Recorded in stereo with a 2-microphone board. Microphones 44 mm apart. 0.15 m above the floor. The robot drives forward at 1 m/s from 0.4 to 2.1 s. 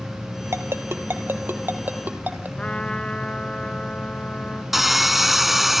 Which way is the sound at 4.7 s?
5° right (ahead or behind).